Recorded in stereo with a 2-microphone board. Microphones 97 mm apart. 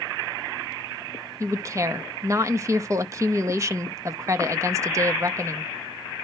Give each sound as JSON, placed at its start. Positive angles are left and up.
{"t": 1.4, "sound": "a woman speaking", "side_deg": -35, "distance_m": 0.8}